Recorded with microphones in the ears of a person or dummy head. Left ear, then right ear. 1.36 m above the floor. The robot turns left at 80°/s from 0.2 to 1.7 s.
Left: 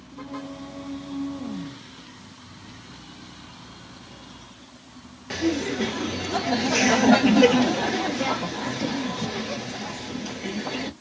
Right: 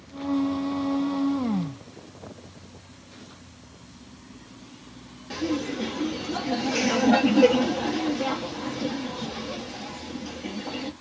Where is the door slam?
No door slam in this recording.